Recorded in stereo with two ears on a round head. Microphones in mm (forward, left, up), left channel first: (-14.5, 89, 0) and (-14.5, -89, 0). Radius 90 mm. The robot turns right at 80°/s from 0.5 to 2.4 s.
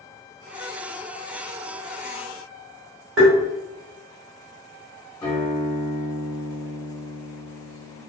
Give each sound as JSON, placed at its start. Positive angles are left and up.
{"t": 3.2, "sound": "tapping", "side_deg": -80, "distance_m": 1.2}
{"t": 5.2, "sound": "a guitar", "side_deg": 20, "distance_m": 1.2}